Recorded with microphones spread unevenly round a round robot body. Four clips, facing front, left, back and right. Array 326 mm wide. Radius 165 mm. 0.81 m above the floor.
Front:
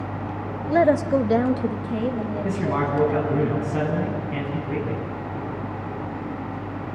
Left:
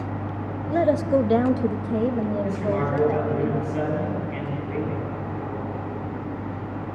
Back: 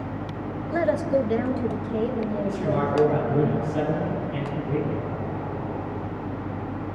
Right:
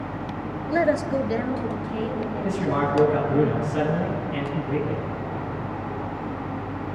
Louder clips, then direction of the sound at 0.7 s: Left 2 dB, front 5 dB; 5° right.